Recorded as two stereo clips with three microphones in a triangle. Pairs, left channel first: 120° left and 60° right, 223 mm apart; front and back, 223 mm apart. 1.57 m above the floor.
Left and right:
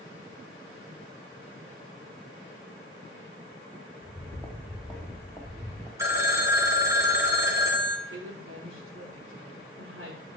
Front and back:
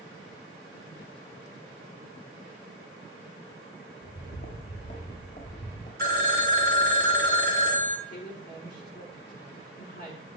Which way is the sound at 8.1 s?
45° right.